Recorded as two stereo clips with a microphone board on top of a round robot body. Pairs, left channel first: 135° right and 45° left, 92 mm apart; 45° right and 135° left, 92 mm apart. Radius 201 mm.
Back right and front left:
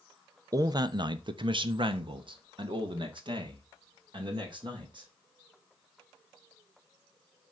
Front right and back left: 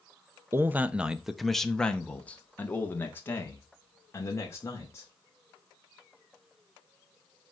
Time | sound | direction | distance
0.5 | a man speaking | 80° left | 1.0 m